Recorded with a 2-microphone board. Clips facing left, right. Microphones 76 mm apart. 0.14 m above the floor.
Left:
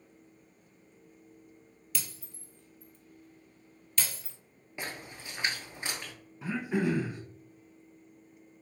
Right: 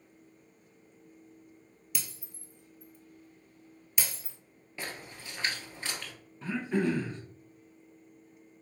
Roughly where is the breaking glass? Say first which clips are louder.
Left 1 dB; centre.